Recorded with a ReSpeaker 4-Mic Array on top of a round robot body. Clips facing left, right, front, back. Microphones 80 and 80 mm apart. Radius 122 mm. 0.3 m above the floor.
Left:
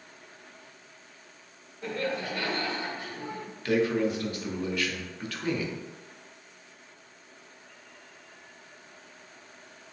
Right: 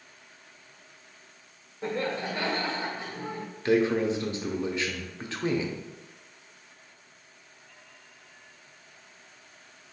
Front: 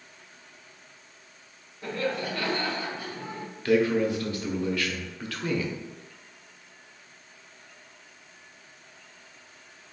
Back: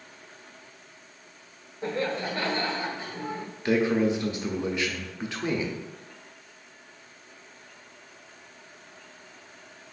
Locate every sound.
1.8 s laughter: 140° right, 1.3 m
3.6 s a man speaking: 130° right, 0.9 m